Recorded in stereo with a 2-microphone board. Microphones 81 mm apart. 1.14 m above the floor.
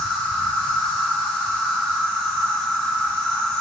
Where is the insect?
35° right (ahead or behind), 1.4 m.